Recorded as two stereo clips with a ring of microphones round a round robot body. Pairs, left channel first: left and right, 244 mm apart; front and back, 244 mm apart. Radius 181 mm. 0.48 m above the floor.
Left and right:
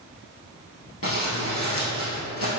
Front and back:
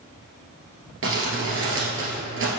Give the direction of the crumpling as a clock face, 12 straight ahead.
7 o'clock.